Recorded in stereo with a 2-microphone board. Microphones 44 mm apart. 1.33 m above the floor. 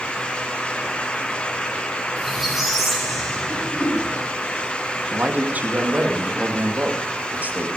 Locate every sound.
2.2 s a squeak: 5° right (ahead or behind), 6.5 m
3.5 s throat clearing: 65° left (ahead or behind), 7 m
5.1 s a man speaking: 40° right (ahead or behind), 2.5 m